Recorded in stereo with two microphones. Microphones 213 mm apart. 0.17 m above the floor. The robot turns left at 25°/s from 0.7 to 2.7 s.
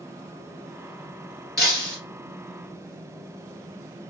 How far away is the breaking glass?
About 1.3 m.